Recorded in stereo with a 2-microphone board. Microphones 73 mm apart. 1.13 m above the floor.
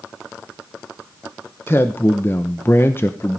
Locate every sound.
1.7 s a man speaking: 30° left (ahead or behind), 0.7 m